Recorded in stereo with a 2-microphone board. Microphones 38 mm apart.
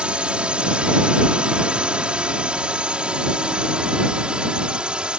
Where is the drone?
25° right (ahead or behind); by 5.2 s 20° right (ahead or behind).